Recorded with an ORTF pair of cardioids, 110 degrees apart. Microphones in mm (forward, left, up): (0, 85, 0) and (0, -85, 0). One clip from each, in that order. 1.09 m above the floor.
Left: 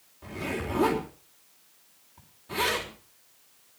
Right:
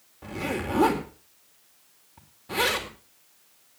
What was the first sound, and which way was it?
A zipper, 35° right.